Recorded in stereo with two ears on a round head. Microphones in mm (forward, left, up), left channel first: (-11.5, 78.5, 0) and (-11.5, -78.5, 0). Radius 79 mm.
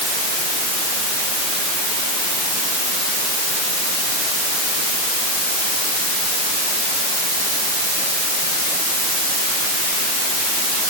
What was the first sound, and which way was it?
Only background noise.